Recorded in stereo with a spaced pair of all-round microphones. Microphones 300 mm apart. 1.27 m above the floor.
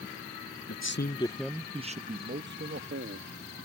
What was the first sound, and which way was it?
A man speaking, 55° left (ahead or behind).